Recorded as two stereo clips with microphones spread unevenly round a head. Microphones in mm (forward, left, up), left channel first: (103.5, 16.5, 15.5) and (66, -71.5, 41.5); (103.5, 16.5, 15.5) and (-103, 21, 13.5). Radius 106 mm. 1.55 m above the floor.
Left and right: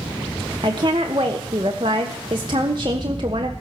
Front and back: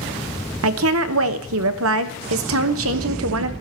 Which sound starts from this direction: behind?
A woman speaking, at 0.6 s.